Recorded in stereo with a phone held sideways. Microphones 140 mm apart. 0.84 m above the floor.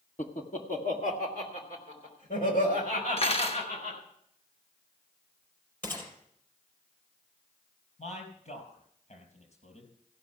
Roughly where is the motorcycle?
I don't hear a motorcycle.